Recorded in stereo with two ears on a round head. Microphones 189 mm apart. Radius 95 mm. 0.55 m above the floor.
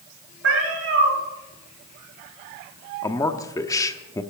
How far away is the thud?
No thud in this recording.